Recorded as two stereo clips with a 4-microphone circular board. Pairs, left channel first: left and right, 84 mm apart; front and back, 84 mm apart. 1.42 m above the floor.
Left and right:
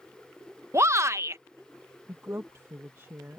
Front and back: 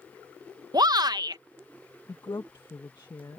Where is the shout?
145° right.